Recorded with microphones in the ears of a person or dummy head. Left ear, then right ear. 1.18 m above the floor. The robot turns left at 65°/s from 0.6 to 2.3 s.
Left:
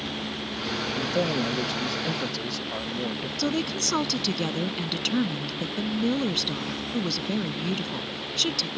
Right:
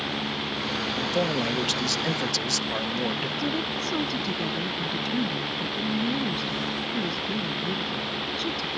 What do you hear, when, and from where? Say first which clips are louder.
0.9 s a man speaking: even; 5° right; by 3.3 s 95° right
3.4 s a woman speaking: left 1 dB; 40° left (ahead or behind)